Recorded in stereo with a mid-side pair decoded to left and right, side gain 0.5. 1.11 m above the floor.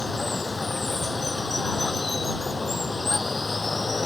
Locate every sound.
0.0 s running water: 25° left